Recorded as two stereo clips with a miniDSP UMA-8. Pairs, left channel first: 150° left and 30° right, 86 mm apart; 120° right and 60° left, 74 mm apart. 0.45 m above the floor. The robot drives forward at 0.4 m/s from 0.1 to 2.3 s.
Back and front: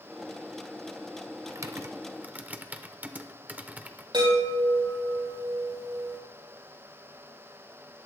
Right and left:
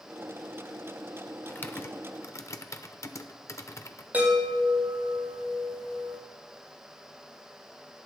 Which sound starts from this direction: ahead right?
Typing on a keyboard, at 1.5 s.